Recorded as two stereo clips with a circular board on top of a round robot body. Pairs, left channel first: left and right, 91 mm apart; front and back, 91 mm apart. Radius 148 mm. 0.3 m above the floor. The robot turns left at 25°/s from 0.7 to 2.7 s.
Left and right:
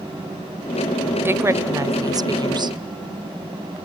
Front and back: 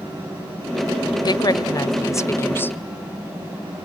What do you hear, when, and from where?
1.2 s a woman speaking: 30° right, 1.7 m; by 2.8 s 65° right, 1.7 m